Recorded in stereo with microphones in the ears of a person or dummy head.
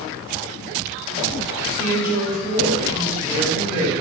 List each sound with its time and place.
1.8 s a woman speaking: 15° right (ahead or behind), 2.0 m